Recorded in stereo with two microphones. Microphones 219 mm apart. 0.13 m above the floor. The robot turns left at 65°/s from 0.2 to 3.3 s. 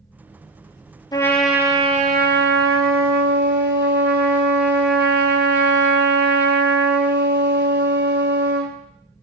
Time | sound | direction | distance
1.1 | a trumpet | 20° left | 0.5 m